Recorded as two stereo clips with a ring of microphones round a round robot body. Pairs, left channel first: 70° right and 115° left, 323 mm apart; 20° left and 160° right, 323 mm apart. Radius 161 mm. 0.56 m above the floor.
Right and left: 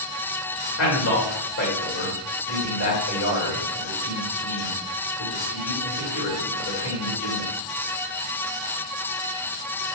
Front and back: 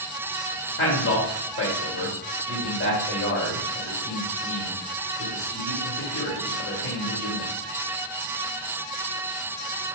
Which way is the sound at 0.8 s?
30° right.